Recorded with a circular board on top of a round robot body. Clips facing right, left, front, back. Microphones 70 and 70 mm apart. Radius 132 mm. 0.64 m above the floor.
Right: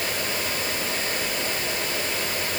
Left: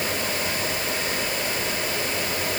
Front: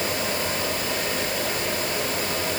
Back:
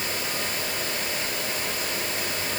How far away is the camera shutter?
I don't hear a camera shutter.